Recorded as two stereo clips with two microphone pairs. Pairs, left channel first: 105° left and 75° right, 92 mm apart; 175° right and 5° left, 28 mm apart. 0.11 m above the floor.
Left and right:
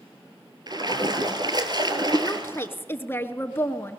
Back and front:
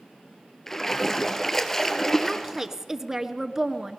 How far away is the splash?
About 1.8 m.